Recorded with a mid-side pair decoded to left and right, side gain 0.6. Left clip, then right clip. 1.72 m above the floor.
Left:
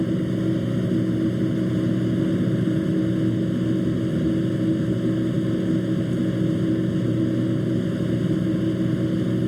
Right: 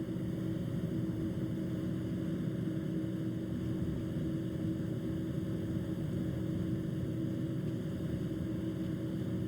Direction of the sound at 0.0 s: 60° left.